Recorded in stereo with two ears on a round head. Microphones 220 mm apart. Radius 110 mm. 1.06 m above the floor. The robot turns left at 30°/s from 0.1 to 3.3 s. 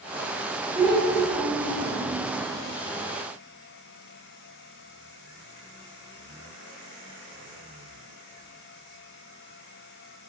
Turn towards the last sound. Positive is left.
turn(degrees=135)